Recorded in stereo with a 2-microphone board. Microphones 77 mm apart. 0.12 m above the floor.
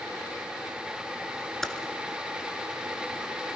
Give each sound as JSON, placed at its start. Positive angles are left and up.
{"t": 1.6, "sound": "typing on a keyboard", "side_deg": 5, "distance_m": 1.5}